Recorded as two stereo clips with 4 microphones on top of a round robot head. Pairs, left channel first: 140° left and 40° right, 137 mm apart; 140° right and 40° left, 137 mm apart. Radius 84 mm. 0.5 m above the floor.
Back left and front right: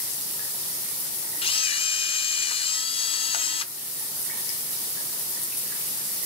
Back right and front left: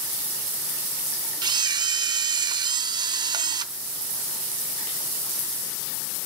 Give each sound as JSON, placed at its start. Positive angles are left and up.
{"t": 1.4, "sound": "a camera shutter", "azimuth_deg": 95, "distance_m": 0.5}